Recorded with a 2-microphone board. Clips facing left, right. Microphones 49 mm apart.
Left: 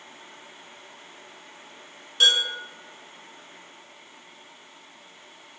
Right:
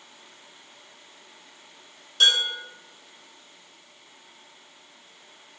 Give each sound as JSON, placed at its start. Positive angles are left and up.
{"t": 2.2, "sound": "dishes clattering", "side_deg": 15, "distance_m": 1.8}